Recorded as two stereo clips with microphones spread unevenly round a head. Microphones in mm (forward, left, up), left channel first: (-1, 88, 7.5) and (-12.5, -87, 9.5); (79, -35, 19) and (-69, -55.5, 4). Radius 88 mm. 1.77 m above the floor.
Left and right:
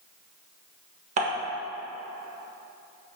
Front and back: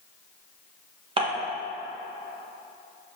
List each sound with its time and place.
1.2 s dishes clattering: 125° right, 1.3 m